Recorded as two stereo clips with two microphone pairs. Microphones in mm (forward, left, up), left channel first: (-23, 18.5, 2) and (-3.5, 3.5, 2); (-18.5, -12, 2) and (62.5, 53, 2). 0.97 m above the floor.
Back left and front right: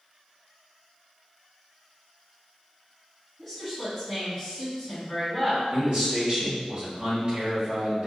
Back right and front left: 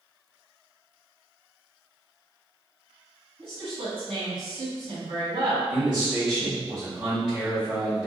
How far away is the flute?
No flute in this recording.